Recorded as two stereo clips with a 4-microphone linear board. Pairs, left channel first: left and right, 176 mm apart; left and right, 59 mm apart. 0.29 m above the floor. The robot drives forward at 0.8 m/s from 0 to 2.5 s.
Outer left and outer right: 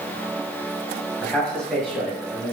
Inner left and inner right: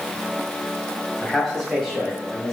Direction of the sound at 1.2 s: 5° left (ahead or behind).